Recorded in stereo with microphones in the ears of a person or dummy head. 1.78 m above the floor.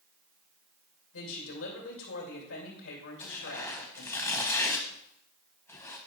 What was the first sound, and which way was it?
A woman speaking, 70° left (ahead or behind).